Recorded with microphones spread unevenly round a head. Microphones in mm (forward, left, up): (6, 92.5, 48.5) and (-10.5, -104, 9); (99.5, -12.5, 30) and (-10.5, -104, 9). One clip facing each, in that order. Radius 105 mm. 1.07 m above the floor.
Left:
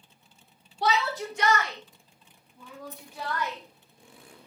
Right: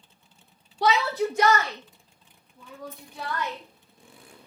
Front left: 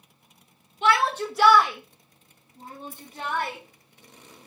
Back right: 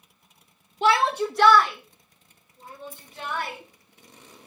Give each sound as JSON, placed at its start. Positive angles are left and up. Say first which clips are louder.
{"t": 0.8, "sound": "a shout", "louder": "right 4 dB, back right 2 dB", "azimuth_deg": -90, "distance_m": 1.2}
{"t": 2.9, "sound": "a dropped coin", "louder": "even, front left 4 dB", "azimuth_deg": 55, "distance_m": 1.7}